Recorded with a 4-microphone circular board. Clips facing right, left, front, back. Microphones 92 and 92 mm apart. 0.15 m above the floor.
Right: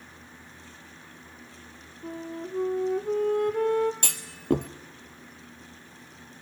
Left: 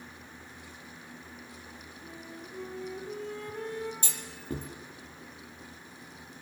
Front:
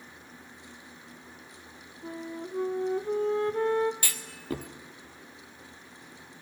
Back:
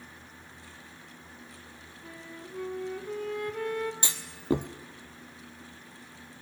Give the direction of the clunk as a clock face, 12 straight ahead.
4 o'clock.